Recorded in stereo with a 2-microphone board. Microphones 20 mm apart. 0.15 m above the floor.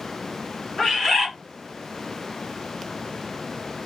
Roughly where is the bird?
Left.